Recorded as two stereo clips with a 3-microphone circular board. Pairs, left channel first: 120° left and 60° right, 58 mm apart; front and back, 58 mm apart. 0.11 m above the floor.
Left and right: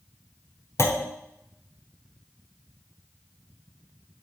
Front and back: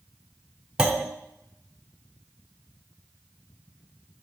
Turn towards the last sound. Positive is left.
turn(degrees=105)